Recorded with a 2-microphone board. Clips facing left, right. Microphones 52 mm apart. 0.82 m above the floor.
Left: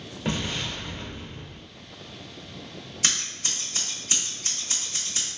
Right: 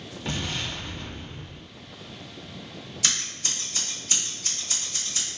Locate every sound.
0.2 s an explosion: 30° left (ahead or behind), 1.1 m
3.0 s scissors: 35° left (ahead or behind), 1.3 m